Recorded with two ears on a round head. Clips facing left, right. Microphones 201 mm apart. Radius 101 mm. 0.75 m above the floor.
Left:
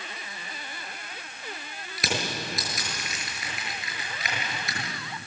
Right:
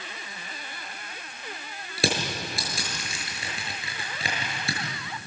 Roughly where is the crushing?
Right.